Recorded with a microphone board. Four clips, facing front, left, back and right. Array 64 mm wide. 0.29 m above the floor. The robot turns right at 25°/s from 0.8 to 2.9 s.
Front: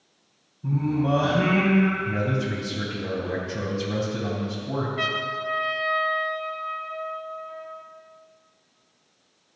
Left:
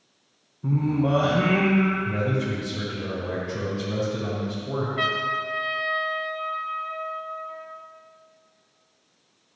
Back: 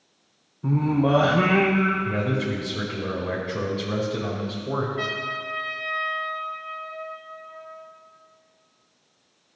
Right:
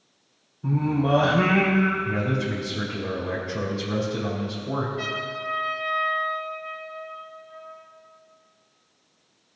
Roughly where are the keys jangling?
No keys jangling in this recording.